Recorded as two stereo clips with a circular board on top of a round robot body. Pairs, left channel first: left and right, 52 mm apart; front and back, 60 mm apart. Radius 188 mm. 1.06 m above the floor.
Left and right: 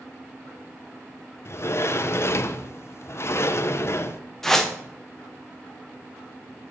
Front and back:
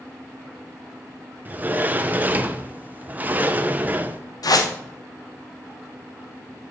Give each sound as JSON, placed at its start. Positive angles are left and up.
{"t": 1.4, "sound": "a sliding door", "azimuth_deg": 120, "distance_m": 0.9}
{"t": 4.4, "sound": "a whoosh", "azimuth_deg": 5, "distance_m": 1.2}